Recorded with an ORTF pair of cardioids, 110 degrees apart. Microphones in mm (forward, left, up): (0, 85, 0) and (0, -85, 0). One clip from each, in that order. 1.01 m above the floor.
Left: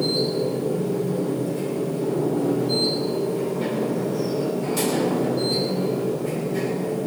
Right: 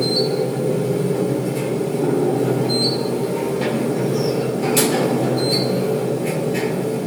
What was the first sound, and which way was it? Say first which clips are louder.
A machine running: right 4 dB; 55° right.